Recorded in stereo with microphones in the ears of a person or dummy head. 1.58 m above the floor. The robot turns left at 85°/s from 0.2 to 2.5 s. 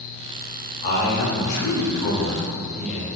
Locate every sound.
0.8 s a man speaking: 145° left, 0.8 m; by 3.1 s 5° left, 0.8 m